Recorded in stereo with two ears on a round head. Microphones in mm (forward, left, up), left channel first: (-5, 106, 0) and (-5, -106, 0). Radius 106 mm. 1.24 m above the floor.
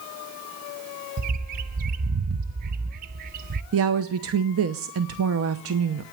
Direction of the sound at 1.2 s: 35° right (ahead or behind).